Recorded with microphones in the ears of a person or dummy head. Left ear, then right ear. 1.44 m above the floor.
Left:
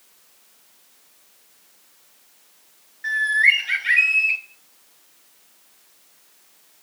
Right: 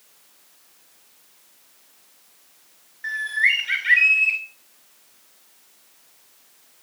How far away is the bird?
About 2.5 m.